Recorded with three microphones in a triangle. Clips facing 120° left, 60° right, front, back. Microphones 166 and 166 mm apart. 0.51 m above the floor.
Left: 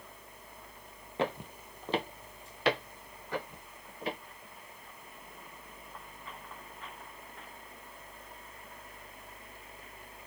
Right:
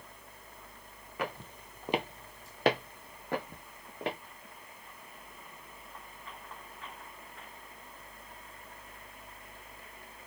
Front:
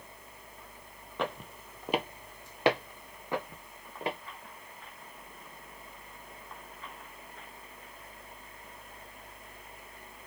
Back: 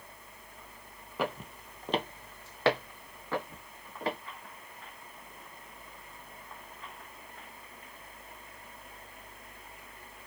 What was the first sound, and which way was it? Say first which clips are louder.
Footsteps: left 5 dB, back 1 dB; 100° left.